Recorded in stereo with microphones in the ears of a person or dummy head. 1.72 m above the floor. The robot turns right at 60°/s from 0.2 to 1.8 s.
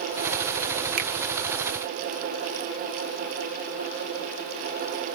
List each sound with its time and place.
1.0 s a finger snap: 50° right (ahead or behind), 0.7 m